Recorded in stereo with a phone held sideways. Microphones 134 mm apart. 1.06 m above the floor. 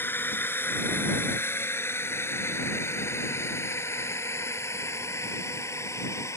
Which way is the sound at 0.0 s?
15° left (ahead or behind).